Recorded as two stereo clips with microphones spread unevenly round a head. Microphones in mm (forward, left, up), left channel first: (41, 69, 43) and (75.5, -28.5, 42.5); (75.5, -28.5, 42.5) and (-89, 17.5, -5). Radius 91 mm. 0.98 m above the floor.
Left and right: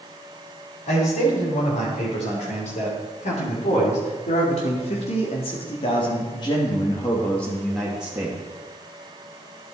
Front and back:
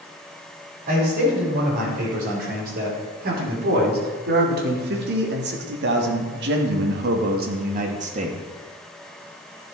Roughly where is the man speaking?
Behind left.